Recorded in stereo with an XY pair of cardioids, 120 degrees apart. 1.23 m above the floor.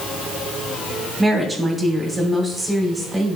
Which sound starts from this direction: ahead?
A woman speaking, at 1.2 s.